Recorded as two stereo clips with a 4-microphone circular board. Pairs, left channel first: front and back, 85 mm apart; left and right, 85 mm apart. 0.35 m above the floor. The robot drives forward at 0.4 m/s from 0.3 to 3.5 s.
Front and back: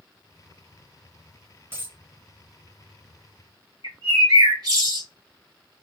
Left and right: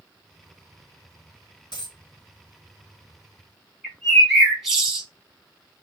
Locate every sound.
1.7 s a dropped coin: 115° left, 1.6 m; by 2.0 s 120° left, 1.6 m
3.8 s a bird: straight behind, 2.5 m